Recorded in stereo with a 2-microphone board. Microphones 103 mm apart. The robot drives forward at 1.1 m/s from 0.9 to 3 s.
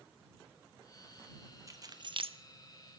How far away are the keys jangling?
About 1.1 m.